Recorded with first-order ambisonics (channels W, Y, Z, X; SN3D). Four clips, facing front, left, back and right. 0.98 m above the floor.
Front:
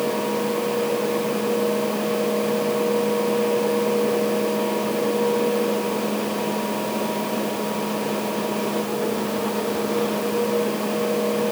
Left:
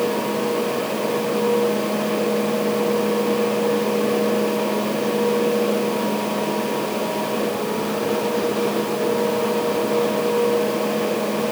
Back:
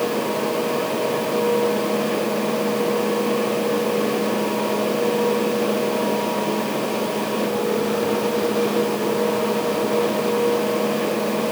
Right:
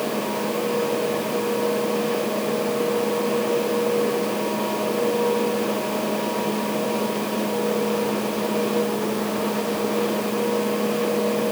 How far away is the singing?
I don't hear singing.